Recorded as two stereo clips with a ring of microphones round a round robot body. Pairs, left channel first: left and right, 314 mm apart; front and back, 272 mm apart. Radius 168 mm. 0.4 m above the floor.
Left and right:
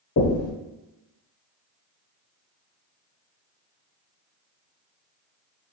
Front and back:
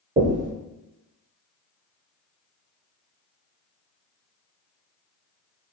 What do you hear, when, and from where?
0.2 s knocking: 130° left, 1.0 m